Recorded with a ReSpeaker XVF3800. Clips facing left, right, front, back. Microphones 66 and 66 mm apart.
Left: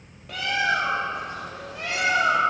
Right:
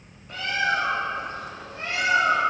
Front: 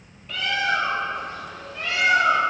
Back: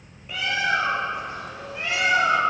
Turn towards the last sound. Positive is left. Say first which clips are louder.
# left 1 dB, even
turn(degrees=105)